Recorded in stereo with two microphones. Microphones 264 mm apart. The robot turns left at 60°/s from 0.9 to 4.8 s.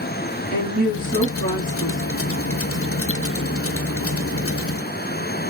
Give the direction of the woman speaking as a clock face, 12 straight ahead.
10 o'clock.